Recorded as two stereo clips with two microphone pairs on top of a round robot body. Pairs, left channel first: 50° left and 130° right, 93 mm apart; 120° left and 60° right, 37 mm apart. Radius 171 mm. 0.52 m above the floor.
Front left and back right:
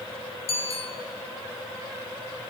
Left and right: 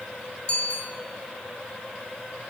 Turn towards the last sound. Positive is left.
turn(degrees=65)